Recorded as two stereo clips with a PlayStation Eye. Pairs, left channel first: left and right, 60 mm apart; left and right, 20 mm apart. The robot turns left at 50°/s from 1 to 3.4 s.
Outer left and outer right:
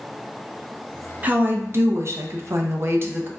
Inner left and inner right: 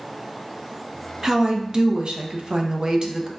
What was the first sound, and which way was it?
A woman speaking, 35° right.